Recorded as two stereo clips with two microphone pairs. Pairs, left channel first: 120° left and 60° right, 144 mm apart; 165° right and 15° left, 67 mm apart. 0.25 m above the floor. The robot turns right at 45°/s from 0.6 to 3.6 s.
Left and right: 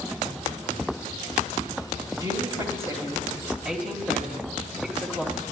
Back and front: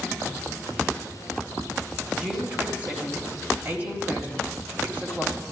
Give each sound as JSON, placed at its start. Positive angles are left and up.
{"t": 2.2, "sound": "a woman speaking", "azimuth_deg": -45, "distance_m": 1.2}